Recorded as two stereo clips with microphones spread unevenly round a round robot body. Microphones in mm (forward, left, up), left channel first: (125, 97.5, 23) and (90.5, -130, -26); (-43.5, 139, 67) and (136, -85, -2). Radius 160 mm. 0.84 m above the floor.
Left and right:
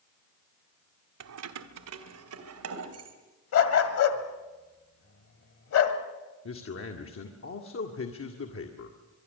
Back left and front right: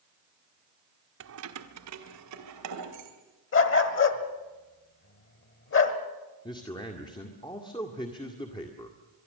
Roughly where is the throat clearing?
No throat clearing in this recording.